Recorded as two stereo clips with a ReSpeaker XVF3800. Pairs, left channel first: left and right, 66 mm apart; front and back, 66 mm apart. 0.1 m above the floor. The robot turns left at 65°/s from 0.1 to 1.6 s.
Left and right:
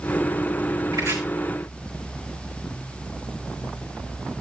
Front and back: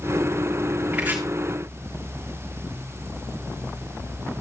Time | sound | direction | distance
0.9 | chopping | 110° right | 3.5 m